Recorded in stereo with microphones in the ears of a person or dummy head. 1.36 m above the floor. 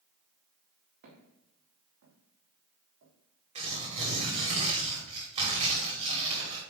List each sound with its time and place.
1.0 s footsteps: 60° right (ahead or behind), 4 m; by 3.1 s 65° right (ahead or behind), 5 m
3.5 s tearing paper: 35° right (ahead or behind), 3 m